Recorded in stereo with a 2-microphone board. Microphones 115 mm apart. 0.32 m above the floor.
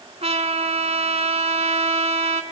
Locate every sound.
0.2 s a trumpet: 70° right (ahead or behind), 1.4 m